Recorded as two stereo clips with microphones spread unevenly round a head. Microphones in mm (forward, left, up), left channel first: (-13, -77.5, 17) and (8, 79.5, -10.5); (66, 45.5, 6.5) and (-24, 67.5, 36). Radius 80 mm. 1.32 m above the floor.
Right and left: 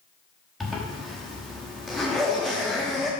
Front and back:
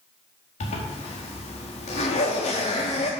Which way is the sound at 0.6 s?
15° right.